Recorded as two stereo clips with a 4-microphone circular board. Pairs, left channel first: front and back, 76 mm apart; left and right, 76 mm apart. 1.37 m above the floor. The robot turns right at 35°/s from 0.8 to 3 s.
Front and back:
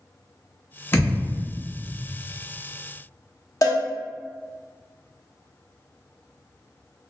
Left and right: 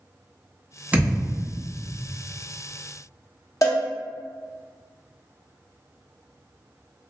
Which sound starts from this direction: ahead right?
A thud, at 0.9 s.